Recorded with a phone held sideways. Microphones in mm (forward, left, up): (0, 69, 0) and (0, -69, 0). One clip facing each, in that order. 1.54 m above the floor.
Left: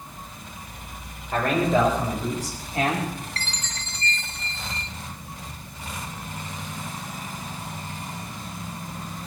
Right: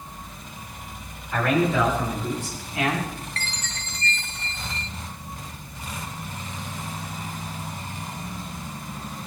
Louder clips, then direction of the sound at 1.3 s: Even; 40° left (ahead or behind).